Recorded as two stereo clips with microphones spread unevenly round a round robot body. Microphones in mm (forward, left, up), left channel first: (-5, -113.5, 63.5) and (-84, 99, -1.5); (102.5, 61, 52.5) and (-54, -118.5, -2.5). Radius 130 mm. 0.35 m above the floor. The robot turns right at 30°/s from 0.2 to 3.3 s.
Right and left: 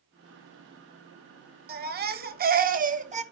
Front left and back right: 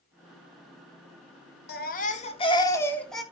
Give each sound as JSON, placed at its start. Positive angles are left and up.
{"t": 1.7, "sound": "a baby crying", "azimuth_deg": 105, "distance_m": 1.0}